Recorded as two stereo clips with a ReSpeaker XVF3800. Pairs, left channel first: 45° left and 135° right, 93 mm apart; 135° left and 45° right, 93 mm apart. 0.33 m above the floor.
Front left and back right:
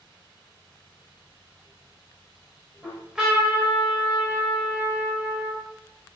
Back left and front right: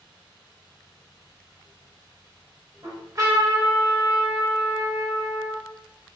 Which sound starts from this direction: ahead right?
A trumpet, at 2.8 s.